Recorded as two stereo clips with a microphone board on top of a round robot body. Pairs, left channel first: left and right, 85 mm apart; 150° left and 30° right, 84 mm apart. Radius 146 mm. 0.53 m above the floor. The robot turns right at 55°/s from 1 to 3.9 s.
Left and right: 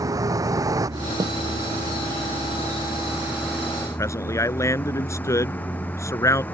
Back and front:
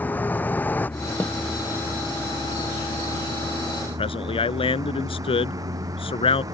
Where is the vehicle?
140° right; by 6.5 s 20° left.